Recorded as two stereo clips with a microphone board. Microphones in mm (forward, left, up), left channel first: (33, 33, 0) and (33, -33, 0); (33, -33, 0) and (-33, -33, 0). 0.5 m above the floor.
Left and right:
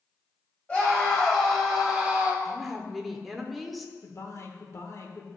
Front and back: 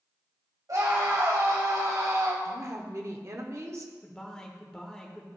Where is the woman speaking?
Straight behind, 0.9 m.